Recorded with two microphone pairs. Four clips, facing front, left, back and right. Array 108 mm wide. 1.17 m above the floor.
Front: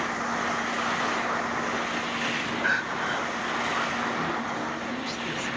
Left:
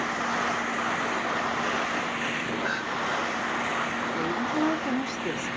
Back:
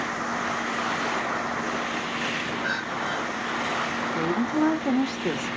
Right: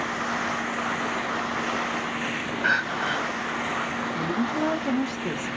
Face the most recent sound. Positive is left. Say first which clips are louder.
# right 1 dB, back 6 dB
turn(degrees=-175)